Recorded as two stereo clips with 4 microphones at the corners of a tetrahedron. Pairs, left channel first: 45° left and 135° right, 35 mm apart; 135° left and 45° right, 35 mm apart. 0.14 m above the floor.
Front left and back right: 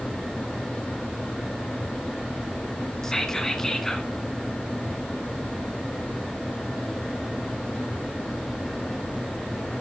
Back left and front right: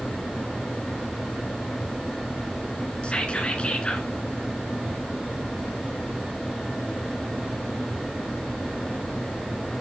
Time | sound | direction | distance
3.0 | whispering | 115° left | 1.4 m